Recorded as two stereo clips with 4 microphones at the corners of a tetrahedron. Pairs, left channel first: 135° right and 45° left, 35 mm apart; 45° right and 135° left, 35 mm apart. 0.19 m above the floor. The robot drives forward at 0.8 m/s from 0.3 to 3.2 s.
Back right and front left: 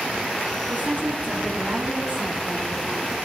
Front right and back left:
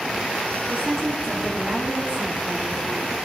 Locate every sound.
0.7 s a woman speaking: 75° left, 3 m; by 3.1 s 115° left, 3 m